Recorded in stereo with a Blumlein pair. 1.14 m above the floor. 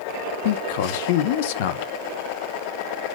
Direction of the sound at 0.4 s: 50° left.